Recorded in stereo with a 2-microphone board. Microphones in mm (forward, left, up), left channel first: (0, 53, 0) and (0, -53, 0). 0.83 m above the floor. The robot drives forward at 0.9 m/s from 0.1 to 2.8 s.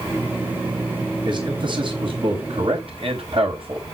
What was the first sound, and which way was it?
A man speaking, 45° right (ahead or behind).